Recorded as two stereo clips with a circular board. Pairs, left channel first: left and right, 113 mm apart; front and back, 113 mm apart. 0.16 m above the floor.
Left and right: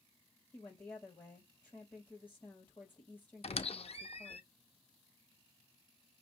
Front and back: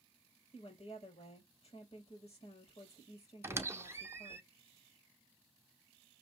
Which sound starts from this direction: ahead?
A woman speaking, at 0.5 s.